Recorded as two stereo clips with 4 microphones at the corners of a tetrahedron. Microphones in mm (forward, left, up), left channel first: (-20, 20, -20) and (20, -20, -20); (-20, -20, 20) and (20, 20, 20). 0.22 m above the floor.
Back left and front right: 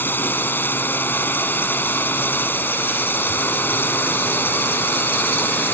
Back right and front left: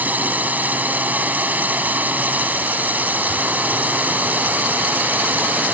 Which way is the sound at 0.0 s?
95° left.